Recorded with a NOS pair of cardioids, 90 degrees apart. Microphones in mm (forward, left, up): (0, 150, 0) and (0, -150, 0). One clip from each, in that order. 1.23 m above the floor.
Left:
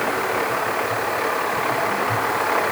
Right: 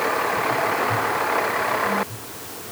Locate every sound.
Only background noise.